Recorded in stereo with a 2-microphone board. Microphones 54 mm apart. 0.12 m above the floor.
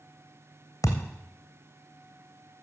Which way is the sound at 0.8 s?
80° left.